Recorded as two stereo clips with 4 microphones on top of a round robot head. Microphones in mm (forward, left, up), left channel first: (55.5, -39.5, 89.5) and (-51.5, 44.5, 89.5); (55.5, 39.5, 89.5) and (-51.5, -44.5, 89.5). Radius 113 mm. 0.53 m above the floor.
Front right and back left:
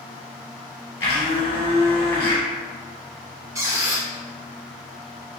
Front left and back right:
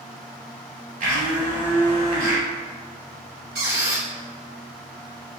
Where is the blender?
110° right, 1.9 m.